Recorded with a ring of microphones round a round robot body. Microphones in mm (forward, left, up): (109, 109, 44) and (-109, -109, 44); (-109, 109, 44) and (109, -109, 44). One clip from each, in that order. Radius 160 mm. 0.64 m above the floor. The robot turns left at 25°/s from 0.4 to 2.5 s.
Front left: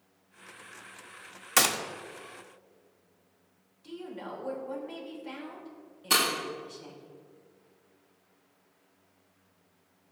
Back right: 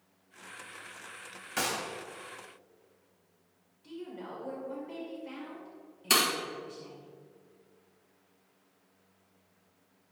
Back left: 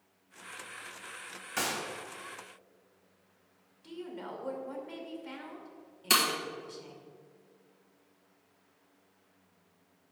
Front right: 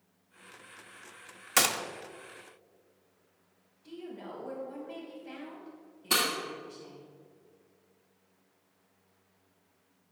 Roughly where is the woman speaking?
Behind left.